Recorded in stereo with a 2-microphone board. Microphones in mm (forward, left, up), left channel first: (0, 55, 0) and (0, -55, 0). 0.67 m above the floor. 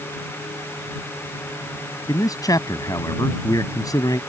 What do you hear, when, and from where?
2.1 s a man speaking: 35° left (ahead or behind)